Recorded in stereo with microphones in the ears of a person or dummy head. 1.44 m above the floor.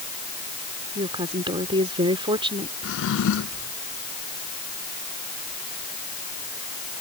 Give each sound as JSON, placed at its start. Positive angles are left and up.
{"t": 0.9, "sound": "a woman speaking", "side_deg": -20}
{"t": 2.8, "sound": "a drawer", "side_deg": 70}